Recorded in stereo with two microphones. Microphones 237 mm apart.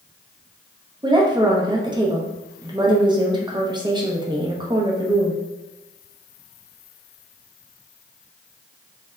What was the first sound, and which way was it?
A woman speaking, 20° right (ahead or behind).